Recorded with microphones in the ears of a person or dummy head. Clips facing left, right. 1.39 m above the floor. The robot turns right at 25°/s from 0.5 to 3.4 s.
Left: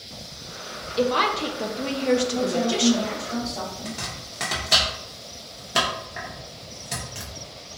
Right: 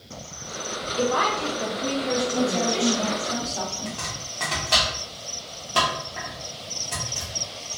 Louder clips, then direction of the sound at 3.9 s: Right 1 dB; 20° left (ahead or behind).